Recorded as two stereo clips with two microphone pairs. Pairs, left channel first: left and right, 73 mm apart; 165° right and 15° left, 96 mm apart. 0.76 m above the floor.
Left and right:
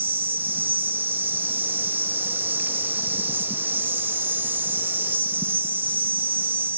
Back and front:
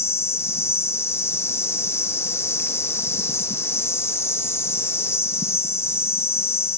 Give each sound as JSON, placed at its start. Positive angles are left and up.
{"t": 0.0, "sound": "an insect", "azimuth_deg": -125, "distance_m": 0.7}